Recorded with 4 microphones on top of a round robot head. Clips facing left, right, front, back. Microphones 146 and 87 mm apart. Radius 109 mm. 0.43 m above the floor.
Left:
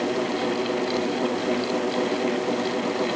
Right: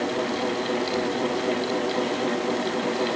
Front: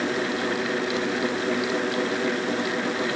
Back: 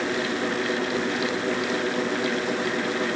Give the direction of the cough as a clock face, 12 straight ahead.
No cough in this recording.